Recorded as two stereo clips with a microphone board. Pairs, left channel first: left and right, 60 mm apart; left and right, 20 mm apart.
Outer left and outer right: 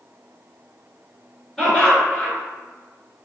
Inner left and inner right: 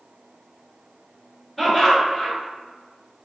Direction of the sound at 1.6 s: 10° left (ahead or behind).